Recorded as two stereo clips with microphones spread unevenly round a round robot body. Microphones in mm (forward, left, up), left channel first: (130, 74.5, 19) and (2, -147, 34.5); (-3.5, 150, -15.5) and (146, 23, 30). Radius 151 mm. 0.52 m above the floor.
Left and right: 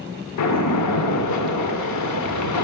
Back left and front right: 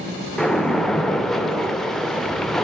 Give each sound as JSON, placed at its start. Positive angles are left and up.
{"t": 0.4, "sound": "a splash", "azimuth_deg": 55, "distance_m": 0.7}